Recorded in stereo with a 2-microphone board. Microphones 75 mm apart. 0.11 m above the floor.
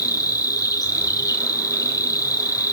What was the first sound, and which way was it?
An insect, 50° left (ahead or behind).